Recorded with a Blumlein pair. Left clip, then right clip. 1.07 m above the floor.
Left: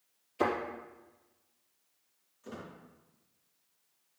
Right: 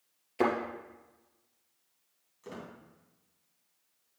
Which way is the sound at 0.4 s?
65° right.